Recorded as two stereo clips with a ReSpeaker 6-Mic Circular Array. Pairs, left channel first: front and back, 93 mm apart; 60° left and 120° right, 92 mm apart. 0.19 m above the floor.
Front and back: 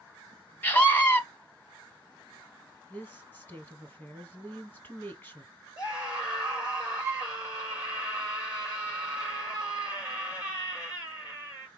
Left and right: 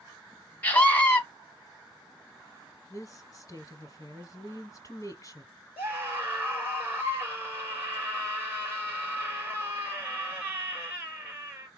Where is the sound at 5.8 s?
50° right, 4.5 m.